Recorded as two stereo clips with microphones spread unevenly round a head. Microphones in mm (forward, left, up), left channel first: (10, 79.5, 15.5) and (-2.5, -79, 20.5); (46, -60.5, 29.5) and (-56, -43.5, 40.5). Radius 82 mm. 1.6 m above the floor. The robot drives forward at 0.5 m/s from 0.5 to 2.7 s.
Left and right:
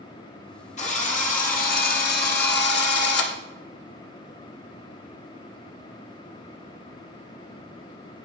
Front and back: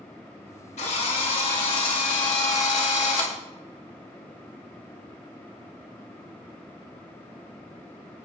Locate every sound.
0.8 s a drill: 40° left, 2 m; by 3.4 s 65° left, 1.5 m